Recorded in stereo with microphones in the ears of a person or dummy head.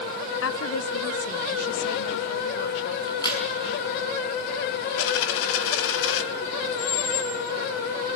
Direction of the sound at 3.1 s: 25° left (ahead or behind).